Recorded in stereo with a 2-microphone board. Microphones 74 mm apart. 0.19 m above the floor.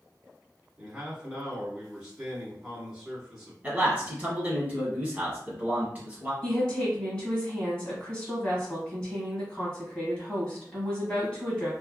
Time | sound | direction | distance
0.8 | a man speaking | 10° right (ahead or behind) | 1.4 m
3.6 | a man speaking | 20° right (ahead or behind) | 1.5 m
6.4 | a woman speaking | 20° left (ahead or behind) | 1.5 m